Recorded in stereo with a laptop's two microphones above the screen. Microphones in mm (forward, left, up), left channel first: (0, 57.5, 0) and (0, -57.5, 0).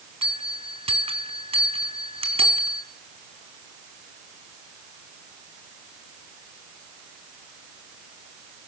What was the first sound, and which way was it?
A bell, 60° right (ahead or behind).